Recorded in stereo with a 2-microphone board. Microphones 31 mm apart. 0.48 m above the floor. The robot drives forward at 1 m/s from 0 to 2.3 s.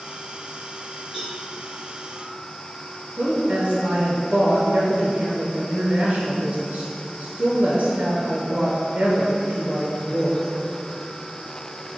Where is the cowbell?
25° right (ahead or behind), 1.7 m; by 1.4 s 20° right (ahead or behind), 1.8 m.